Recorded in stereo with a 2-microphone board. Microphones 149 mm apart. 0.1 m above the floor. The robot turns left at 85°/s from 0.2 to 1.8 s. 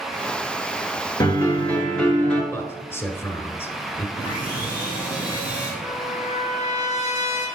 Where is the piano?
65° left, 2.0 m; by 2.4 s 15° left, 2.0 m.